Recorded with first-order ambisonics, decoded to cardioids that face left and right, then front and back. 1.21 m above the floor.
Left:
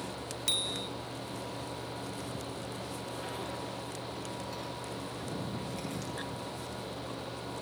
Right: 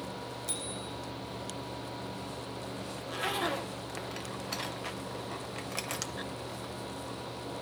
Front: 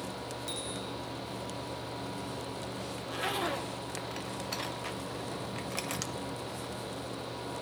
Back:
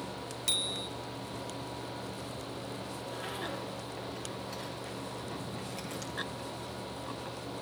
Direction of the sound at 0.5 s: 125° left.